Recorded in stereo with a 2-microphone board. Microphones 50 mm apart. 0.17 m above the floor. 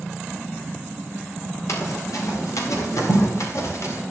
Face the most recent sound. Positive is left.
turn(degrees=65)  # may be behind; listen again after turning